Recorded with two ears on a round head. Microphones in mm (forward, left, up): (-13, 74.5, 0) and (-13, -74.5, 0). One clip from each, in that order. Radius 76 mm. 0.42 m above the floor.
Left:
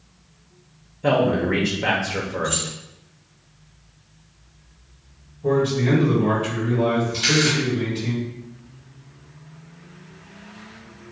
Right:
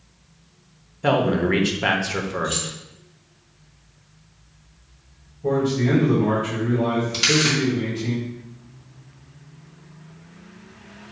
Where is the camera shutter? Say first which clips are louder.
Right 2 dB; 60° right (ahead or behind), 2.5 m.